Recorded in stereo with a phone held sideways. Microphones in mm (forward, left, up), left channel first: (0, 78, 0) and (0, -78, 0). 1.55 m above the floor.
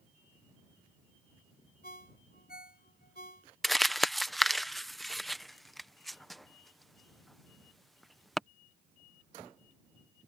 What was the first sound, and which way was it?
A ringtone, 80° left.